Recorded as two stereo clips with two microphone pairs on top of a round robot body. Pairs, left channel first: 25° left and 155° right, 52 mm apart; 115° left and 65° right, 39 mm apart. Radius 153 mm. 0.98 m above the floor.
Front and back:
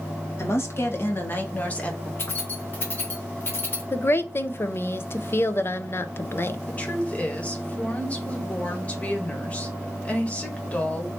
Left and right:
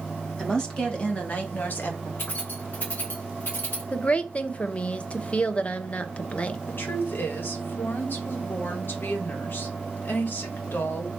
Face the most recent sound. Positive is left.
turn(degrees=85)